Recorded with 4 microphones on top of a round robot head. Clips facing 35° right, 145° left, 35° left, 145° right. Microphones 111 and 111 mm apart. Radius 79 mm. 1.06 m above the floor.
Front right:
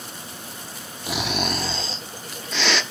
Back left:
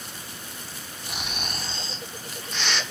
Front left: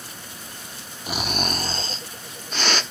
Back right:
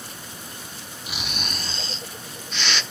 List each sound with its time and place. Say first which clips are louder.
1.1 s snoring: front right 10 dB, front left 8 dB; 15° right, 1.0 m